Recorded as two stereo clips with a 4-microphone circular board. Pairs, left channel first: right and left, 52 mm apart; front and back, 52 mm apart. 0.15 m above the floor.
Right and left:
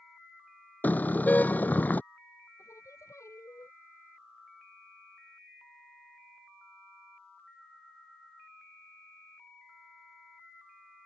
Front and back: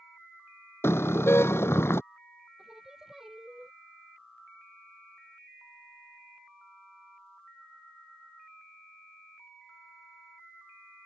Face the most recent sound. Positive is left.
turn(degrees=-100)